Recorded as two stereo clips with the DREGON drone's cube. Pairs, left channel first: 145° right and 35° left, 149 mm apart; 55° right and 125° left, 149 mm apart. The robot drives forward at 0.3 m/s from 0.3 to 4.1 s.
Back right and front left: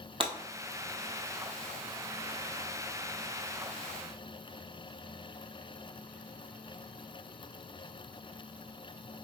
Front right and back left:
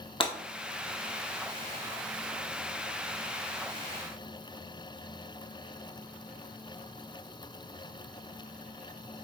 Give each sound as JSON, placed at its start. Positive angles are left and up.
{"t": 0.2, "sound": "breaking glass", "azimuth_deg": -10, "distance_m": 1.3}